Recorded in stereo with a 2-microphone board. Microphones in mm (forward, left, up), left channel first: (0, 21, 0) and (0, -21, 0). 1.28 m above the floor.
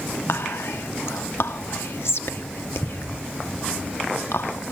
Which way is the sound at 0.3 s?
75° left (ahead or behind).